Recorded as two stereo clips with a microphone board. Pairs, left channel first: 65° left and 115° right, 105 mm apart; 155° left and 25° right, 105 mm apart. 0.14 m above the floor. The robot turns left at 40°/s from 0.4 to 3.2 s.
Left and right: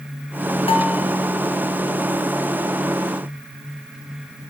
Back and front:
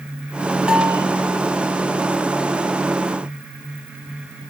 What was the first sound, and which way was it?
A bell, 60° left.